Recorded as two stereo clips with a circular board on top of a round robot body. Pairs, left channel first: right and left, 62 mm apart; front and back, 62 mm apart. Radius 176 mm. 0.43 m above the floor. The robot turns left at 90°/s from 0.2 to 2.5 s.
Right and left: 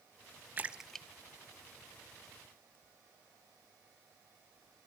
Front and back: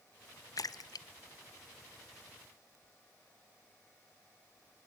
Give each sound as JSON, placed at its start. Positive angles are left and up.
{"t": 0.6, "sound": "a splash", "azimuth_deg": 30, "distance_m": 0.6}